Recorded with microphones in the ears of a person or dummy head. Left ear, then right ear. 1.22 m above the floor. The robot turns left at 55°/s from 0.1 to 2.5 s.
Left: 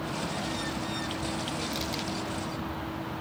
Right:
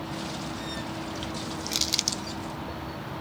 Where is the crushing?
25° right (ahead or behind); by 2.2 s 55° right (ahead or behind).